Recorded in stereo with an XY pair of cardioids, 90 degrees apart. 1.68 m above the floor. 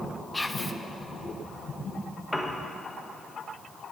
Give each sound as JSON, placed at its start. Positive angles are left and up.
{"t": 0.3, "sound": "whispering", "azimuth_deg": 10, "distance_m": 0.7}
{"t": 2.3, "sound": "a piano", "azimuth_deg": 10, "distance_m": 1.0}